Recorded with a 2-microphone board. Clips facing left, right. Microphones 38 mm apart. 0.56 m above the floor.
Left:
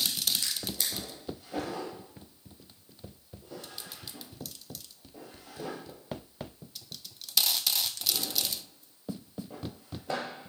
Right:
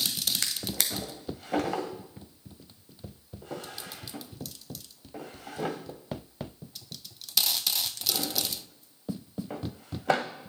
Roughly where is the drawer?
Right.